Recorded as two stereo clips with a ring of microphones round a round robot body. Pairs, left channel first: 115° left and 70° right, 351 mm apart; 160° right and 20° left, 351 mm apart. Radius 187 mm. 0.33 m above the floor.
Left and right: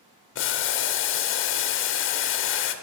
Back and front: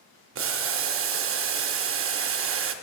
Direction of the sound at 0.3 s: 65° left.